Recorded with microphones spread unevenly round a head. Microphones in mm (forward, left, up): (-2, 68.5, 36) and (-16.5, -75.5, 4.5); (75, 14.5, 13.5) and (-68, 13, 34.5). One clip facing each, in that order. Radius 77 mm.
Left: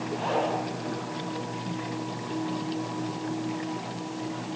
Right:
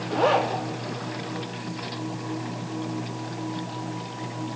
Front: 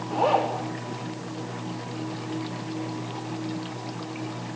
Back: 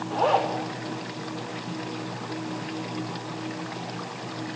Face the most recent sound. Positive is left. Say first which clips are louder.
# right 6 dB, even
turn(degrees=-85)